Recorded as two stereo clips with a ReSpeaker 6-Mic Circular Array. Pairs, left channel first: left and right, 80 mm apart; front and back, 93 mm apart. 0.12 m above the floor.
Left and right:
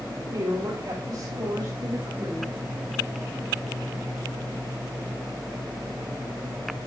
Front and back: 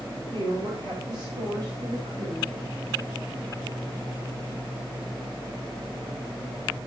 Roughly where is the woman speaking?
Behind right.